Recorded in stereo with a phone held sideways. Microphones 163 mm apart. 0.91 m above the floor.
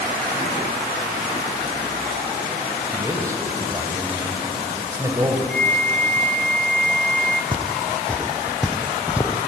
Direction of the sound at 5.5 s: 10° left (ahead or behind).